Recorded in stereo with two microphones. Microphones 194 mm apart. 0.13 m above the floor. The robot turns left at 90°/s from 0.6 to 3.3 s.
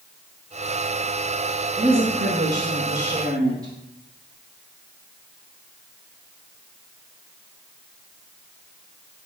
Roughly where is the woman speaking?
Ahead.